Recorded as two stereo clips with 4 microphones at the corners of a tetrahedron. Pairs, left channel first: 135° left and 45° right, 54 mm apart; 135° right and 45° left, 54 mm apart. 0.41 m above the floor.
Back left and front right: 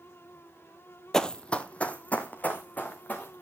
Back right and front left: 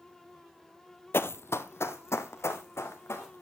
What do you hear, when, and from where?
1.1 s running footsteps: 145° right, 0.5 m; by 3.4 s 165° right, 2.5 m